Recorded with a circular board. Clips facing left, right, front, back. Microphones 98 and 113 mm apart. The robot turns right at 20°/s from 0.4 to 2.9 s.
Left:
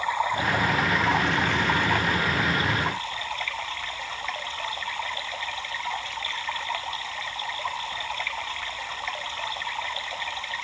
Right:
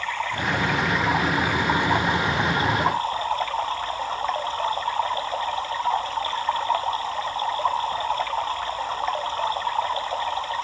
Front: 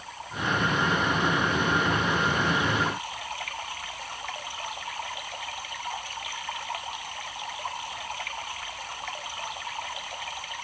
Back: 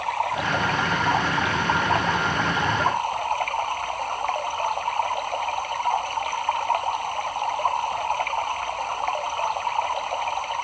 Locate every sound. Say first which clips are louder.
0.0 s running water: left 2 dB, back 10 dB; 165° left; by 10.7 s 145° right